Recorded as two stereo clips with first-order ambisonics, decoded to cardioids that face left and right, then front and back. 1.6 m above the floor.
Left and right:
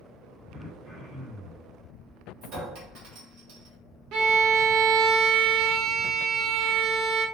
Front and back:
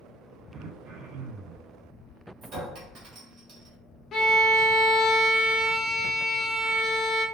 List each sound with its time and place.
0.5 s throat clearing: 170° right, 0.8 m
2.4 s a clink: 125° right, 0.9 m
4.1 s a violin: 55° right, 0.5 m